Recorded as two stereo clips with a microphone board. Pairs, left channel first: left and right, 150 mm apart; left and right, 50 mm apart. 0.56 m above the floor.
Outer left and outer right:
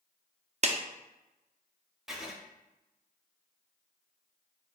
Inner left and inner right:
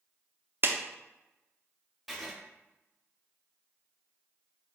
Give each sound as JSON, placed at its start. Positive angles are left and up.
{"t": 0.6, "sound": "a clap", "side_deg": -45, "distance_m": 0.5}
{"t": 2.1, "sound": "writing", "side_deg": -5, "distance_m": 0.8}